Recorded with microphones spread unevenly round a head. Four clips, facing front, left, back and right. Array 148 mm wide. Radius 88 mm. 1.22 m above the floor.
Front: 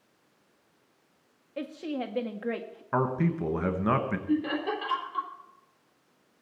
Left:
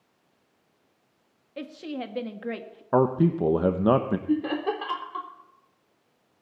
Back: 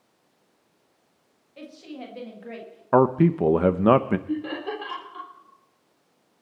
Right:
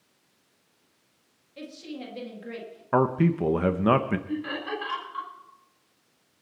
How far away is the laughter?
About 3.5 m.